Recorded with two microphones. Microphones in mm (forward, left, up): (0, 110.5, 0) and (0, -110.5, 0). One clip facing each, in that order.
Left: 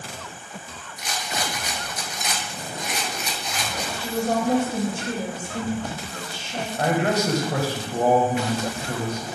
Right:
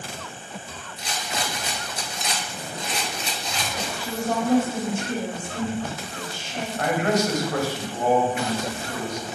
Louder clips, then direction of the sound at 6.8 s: Even; 35° left (ahead or behind).